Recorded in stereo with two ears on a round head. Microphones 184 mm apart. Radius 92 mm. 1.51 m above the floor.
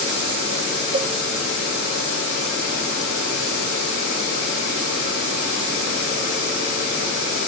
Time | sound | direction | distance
0.9 | a cowbell | 25° right (ahead or behind) | 0.7 m